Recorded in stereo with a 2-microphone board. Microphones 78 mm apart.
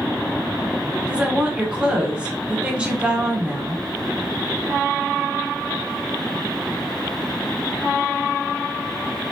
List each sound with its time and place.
1.1 s a woman speaking: 15° right (ahead or behind), 1.0 m